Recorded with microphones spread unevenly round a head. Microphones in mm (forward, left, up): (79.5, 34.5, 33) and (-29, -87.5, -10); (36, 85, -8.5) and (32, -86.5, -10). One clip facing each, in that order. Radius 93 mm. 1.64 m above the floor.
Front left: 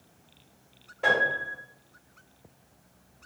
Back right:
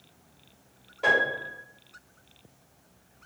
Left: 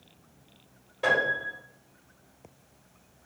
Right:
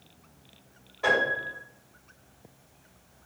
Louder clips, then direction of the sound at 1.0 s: Even, right 1 dB; 140° left.